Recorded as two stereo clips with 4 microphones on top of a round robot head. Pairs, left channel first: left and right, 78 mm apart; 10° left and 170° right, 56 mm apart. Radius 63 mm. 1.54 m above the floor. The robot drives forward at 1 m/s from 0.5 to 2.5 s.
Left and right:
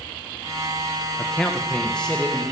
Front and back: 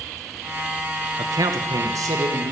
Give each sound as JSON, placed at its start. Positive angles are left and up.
{"t": 1.2, "sound": "a man speaking", "azimuth_deg": 170, "distance_m": 1.1}